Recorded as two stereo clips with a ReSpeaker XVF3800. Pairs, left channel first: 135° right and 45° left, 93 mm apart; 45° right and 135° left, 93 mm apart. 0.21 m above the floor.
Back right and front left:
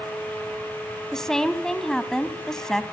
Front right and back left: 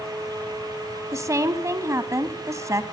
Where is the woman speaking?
145° left, 1.2 m.